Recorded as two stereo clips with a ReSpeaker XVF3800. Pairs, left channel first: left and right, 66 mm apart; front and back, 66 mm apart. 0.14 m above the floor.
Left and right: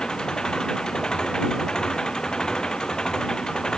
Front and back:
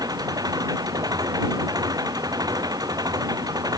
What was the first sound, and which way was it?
An engine running, 170° left.